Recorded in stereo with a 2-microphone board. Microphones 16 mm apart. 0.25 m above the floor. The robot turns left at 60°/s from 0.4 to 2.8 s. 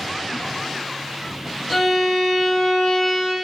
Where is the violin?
Centre (ahead or behind), 0.9 m; by 3.4 s 25° left (ahead or behind), 0.9 m.